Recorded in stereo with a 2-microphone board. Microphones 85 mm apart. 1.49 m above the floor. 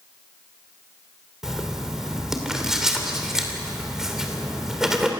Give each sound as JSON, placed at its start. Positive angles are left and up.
{"t": 1.4, "sound": "writing", "side_deg": -5, "distance_m": 2.5}